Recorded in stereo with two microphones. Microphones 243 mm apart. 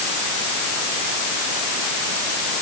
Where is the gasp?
I don't hear a gasp.